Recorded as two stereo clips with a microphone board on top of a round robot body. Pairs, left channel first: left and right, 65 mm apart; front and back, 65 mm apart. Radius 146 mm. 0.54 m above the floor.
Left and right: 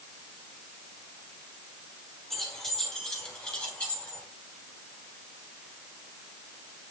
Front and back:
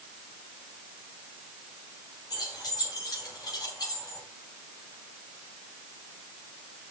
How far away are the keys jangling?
About 4 m.